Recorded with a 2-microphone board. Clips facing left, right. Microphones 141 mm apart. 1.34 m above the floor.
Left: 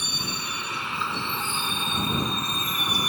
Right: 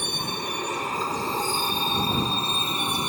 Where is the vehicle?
50° right (ahead or behind); by 3.1 s 25° right (ahead or behind).